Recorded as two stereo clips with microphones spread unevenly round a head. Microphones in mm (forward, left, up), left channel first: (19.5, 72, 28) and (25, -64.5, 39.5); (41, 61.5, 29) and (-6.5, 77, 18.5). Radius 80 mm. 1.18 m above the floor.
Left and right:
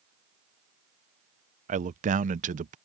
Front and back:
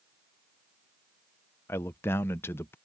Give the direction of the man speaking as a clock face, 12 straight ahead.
2 o'clock.